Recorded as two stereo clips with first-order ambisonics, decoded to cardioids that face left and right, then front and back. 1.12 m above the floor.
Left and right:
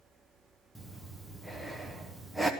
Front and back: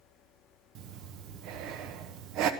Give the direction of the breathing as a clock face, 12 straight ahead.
6 o'clock.